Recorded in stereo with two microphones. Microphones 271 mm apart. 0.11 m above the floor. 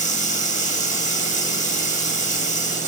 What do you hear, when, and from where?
0.0 s running water: 25° left (ahead or behind), 3.5 m